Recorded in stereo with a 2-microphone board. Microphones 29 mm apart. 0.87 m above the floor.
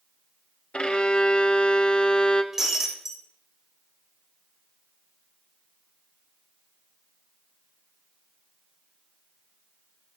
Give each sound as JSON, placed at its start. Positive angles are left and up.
{"t": 0.7, "sound": "a violin", "side_deg": 35, "distance_m": 0.8}
{"t": 2.5, "sound": "breaking glass", "side_deg": -15, "distance_m": 2.0}